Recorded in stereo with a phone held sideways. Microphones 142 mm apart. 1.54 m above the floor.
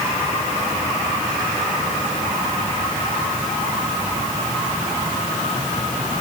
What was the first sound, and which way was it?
Only background noise.